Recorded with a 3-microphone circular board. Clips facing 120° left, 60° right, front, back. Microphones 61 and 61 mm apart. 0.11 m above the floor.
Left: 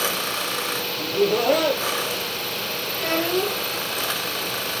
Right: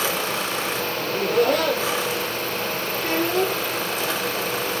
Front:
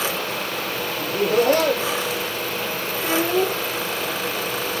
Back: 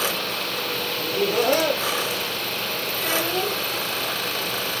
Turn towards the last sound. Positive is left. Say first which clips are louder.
# right 1 dB, front 5 dB
turn(degrees=65)